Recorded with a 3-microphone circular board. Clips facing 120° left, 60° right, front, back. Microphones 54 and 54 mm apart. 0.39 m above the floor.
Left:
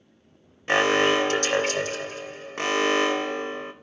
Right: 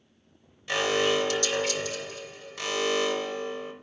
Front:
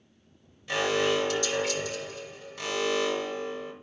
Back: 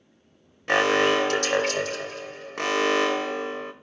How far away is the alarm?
About 0.9 m.